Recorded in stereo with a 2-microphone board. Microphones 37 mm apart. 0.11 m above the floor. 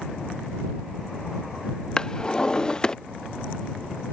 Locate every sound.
2.0 s a drawer: 20° left (ahead or behind)